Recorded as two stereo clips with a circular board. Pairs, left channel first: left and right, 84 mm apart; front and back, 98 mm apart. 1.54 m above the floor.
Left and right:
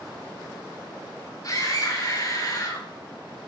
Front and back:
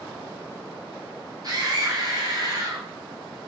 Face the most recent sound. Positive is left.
turn(degrees=135)